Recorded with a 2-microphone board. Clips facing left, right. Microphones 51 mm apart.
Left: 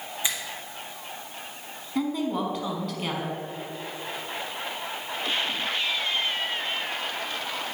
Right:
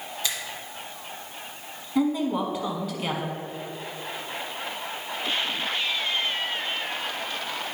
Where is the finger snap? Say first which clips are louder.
Left 1 dB; 20° left (ahead or behind), 1.1 m.